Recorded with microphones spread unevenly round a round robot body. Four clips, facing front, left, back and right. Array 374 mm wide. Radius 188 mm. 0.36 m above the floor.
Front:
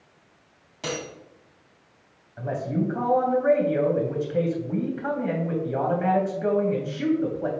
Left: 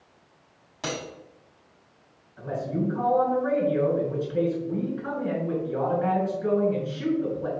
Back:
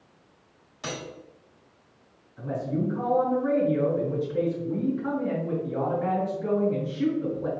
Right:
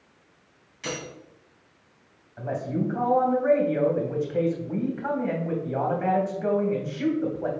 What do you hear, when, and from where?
0.8 s cutlery clinking: 55° left, 2 m
2.4 s a man speaking: 20° right, 2.5 m